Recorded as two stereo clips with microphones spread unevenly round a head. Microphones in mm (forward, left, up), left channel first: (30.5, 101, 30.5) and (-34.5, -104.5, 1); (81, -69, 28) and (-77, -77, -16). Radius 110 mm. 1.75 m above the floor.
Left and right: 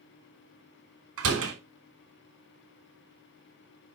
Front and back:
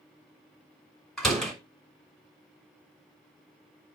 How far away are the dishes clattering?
No dishes clattering in this recording.